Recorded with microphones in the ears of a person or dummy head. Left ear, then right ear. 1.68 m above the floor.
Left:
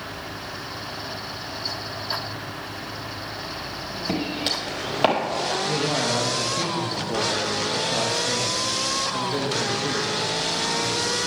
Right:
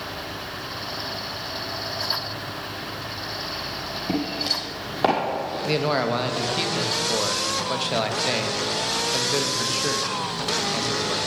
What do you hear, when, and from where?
4.1 s footsteps: 10° left (ahead or behind), 2.5 m; by 5.5 s 35° left (ahead or behind), 2.5 m
5.7 s a man speaking: 55° right (ahead or behind), 0.9 m